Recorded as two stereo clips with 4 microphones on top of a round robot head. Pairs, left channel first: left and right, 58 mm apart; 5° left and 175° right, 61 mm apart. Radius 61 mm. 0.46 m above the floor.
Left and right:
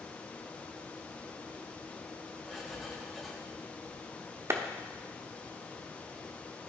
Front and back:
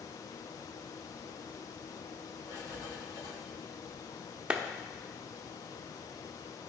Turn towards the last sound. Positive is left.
turn(degrees=-105)